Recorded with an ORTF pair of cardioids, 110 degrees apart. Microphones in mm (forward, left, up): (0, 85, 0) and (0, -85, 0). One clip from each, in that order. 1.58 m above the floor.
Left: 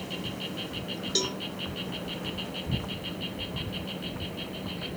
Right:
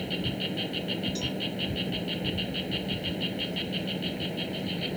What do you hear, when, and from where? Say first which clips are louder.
0.0 s an insect: right 4 dB; 30° right
1.1 s a cowbell: left 4 dB; 65° left